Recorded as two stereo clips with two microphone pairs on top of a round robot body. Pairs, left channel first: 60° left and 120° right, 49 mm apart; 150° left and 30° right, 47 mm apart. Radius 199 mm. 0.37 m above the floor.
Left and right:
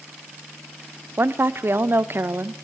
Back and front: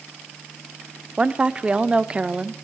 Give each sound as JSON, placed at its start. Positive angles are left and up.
{"t": 1.2, "sound": "a woman speaking", "azimuth_deg": -100, "distance_m": 1.2}